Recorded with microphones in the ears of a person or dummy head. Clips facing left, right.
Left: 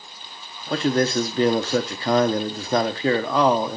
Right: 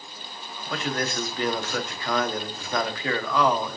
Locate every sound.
0.7 s a man speaking: 30° left (ahead or behind), 1.0 m